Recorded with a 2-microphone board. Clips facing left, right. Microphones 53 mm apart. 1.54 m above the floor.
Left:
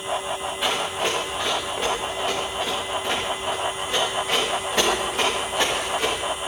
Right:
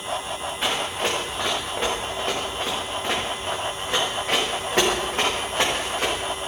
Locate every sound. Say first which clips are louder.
0.6 s running footsteps: even; 30° right (ahead or behind), 7 m; by 6.2 s 45° right (ahead or behind), 10 m